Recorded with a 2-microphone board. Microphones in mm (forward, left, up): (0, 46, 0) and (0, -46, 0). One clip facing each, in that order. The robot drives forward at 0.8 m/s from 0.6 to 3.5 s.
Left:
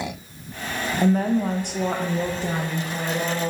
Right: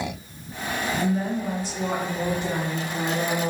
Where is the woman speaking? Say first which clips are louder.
Left 8 dB; 55° left (ahead or behind), 0.9 m; by 3.5 s 20° left (ahead or behind), 1.9 m.